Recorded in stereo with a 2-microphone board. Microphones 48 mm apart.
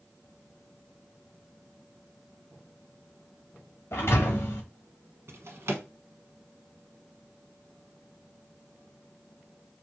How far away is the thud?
About 2 m.